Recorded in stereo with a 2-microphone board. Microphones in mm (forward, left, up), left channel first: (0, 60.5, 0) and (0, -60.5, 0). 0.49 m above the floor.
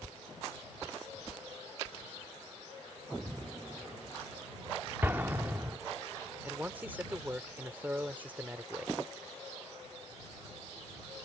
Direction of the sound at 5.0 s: 15° right (ahead or behind).